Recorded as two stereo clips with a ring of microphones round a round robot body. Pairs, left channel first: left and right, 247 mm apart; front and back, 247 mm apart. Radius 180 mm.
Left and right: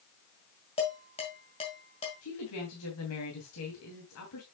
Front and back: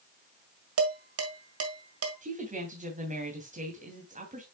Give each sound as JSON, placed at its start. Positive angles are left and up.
{"t": 0.8, "sound": "dishes clattering", "azimuth_deg": 160, "distance_m": 1.9}
{"t": 2.2, "sound": "a woman speaking", "azimuth_deg": 120, "distance_m": 3.0}